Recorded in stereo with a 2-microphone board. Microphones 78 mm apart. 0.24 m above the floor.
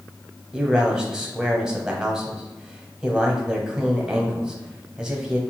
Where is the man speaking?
10° right (ahead or behind), 1.1 m.